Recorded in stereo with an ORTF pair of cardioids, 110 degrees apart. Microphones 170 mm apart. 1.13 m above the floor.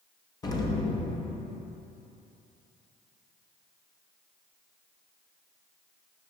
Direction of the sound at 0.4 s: 25° left.